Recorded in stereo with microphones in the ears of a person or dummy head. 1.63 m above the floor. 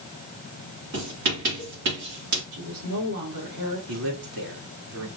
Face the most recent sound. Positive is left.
turn(degrees=-80)